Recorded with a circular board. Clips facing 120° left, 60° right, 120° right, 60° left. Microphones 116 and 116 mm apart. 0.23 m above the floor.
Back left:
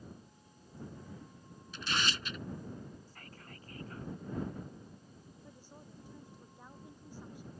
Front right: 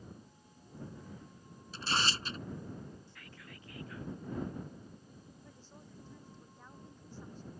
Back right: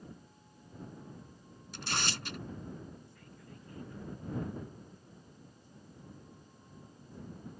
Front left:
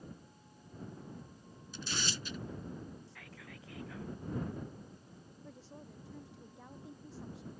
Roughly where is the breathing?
I don't hear breathing.